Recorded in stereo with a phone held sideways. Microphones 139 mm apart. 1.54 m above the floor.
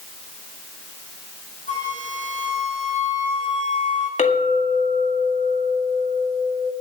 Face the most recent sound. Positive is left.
turn(degrees=65)  # may be behind; listen again after turning